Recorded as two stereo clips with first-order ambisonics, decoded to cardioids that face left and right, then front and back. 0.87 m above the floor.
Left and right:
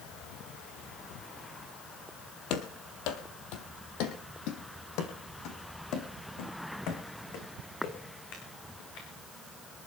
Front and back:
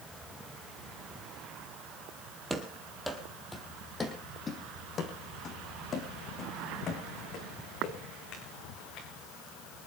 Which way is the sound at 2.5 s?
105° left.